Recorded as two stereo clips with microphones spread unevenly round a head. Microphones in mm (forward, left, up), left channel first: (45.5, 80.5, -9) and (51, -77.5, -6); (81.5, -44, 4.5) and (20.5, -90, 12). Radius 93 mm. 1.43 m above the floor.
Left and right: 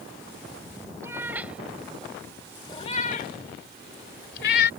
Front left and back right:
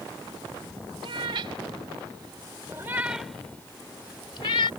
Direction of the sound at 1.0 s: 165° right.